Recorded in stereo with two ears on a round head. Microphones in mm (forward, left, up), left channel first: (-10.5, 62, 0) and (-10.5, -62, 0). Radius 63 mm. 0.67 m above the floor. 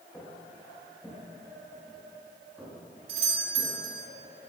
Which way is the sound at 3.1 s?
40° right (ahead or behind).